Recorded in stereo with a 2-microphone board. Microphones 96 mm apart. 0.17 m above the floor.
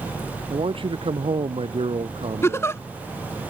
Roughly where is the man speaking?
Right.